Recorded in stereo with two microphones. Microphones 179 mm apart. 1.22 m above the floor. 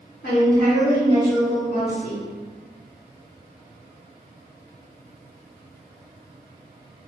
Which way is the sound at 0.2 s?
75° left (ahead or behind).